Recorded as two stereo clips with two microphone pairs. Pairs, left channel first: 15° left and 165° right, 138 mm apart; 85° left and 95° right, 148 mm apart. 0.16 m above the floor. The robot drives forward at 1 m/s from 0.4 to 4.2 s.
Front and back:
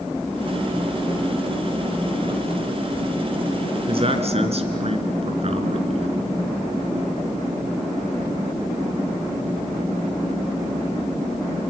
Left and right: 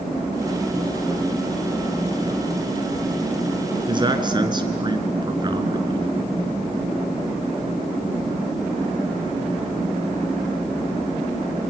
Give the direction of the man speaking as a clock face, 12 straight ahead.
5 o'clock.